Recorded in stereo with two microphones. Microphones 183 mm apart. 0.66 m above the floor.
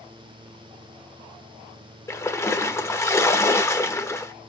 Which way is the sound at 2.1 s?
15° left (ahead or behind).